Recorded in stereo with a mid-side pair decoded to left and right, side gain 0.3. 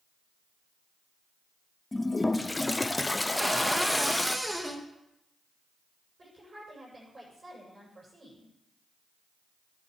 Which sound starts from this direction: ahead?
A cupboard door, at 3.4 s.